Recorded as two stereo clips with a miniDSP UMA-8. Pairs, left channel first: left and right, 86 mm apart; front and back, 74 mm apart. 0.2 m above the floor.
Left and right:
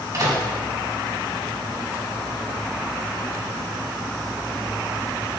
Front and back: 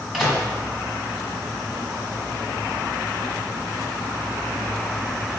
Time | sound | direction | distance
0.1 | a microwave | 90° right | 1.2 m